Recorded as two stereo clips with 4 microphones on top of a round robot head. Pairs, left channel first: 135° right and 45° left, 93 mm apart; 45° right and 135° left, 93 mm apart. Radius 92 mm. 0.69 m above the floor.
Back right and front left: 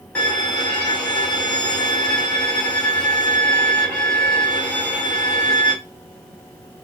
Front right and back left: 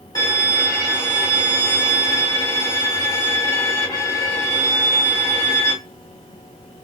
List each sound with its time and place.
0.1 s a violin: 65° right, 1.6 m